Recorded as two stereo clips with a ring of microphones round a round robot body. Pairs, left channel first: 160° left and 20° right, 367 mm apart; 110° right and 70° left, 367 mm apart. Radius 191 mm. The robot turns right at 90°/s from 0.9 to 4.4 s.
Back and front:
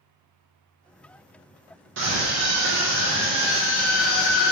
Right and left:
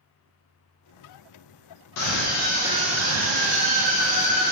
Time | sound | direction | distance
2.0 | a scream | 75° right | 0.5 m